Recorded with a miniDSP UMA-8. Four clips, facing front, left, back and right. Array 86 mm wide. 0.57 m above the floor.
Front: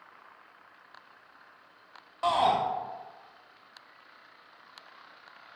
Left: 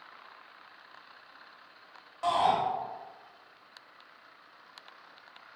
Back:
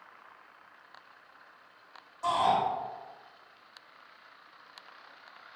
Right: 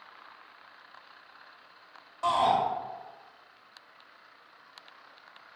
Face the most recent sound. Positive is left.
turn(degrees=0)